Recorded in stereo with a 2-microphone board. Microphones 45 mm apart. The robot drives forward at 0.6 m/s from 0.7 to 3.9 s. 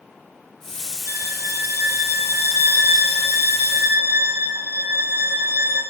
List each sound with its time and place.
1.1 s a violin: 75° right (ahead or behind), 6 m; by 5.8 s 60° right (ahead or behind), 6.5 m